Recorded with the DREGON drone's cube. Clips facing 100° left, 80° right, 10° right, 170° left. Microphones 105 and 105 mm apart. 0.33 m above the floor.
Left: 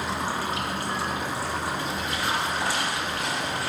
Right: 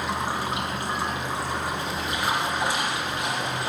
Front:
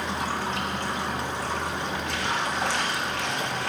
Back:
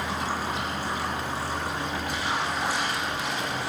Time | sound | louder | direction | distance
0.0 | running water | right 1 dB, even | 10° right | 8.5 m